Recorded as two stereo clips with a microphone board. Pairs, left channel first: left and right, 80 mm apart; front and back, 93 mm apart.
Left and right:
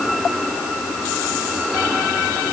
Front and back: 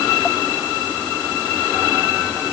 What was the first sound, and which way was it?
Only background noise.